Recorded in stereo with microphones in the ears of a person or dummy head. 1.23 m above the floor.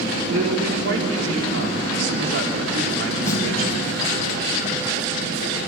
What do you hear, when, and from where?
0.3 s a man speaking: 70° right (ahead or behind), 3.5 m
3.3 s a snare drum: 20° left (ahead or behind), 3.5 m